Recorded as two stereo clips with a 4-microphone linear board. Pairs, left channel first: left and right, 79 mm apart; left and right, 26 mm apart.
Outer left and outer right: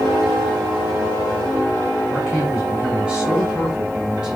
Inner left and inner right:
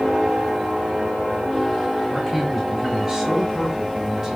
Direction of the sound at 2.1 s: 15° right (ahead or behind).